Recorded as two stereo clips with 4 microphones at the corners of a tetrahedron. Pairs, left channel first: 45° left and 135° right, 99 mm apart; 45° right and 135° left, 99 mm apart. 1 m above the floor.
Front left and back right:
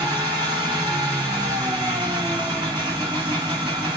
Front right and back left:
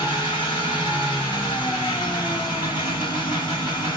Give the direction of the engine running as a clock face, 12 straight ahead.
3 o'clock.